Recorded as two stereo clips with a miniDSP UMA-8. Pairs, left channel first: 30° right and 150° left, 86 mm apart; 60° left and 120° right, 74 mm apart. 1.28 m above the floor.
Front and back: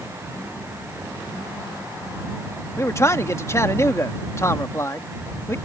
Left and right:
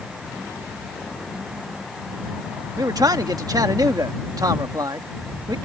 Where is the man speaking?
90° right.